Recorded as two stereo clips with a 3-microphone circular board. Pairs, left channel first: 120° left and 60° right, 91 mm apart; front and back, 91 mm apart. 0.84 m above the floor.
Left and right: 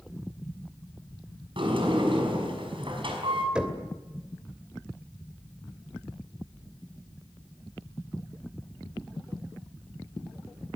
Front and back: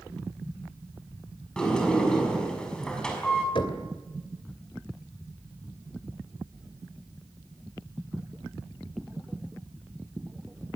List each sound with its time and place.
1.6 s a sliding door: 80° right, 5.5 m
3.5 s knocking: 20° left, 2.5 m